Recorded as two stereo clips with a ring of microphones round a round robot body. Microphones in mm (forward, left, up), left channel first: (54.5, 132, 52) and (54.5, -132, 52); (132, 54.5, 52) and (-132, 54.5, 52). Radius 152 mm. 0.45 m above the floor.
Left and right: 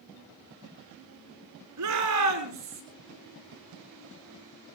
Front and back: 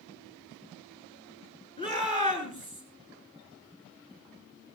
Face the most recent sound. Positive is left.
turn(degrees=-75)